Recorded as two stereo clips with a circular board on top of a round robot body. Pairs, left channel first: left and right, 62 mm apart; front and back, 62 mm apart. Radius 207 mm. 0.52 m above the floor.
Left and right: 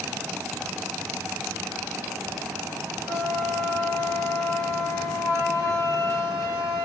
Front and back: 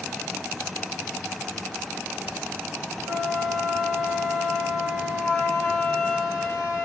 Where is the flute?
85° left, 1.9 m.